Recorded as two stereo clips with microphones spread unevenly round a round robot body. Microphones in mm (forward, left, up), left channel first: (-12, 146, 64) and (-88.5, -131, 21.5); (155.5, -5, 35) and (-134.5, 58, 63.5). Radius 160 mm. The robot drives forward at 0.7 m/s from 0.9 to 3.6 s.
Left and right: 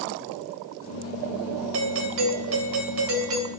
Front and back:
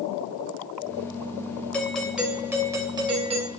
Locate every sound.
1.7 s a doorbell: 95° right, 2.5 m; by 3.5 s 120° right, 3 m